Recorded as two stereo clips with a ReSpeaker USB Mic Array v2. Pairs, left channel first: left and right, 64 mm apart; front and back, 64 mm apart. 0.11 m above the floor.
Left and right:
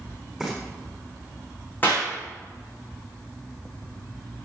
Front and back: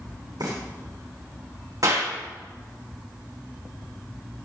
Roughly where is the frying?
Behind.